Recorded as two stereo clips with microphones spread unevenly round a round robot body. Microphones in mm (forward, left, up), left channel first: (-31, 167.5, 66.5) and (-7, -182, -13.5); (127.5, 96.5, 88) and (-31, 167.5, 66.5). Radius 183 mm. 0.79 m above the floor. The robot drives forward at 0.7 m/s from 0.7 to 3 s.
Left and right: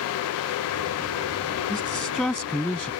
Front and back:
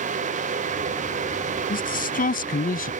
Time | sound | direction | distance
1.7 | a man speaking | 5° left | ?